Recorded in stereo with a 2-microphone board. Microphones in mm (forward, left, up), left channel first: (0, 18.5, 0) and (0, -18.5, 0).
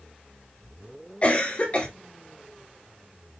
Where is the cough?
35° left (ahead or behind), 1.8 m.